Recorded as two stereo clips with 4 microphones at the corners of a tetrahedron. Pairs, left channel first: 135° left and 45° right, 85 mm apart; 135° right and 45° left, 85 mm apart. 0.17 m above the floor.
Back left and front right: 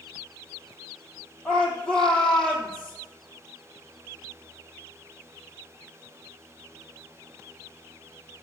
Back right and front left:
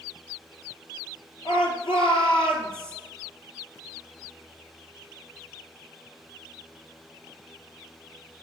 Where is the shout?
140° right, 4.5 m.